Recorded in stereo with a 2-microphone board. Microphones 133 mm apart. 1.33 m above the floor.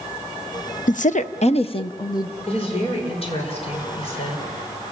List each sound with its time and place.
0.9 s a woman speaking: 75° left (ahead or behind), 0.8 m; by 2.4 s 25° left (ahead or behind), 1.1 m
2.5 s a woman speaking: 50° left (ahead or behind), 5.5 m